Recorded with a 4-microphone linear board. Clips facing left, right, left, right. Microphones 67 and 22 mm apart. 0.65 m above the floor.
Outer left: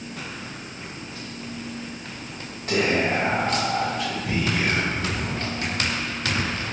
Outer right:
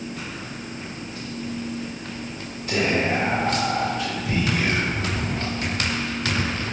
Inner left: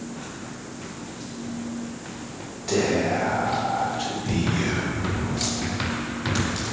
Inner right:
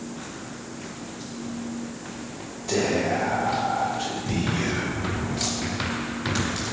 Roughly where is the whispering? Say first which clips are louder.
Even, inner left 1 dB; left.